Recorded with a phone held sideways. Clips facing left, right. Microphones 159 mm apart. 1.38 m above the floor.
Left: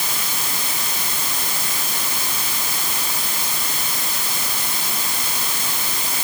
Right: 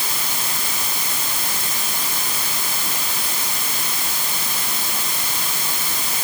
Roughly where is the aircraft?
I don't hear an aircraft.